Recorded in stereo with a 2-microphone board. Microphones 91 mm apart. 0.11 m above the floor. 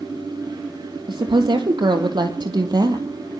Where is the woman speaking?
60° right (ahead or behind), 3.5 m; by 3.1 s 45° right (ahead or behind), 3 m.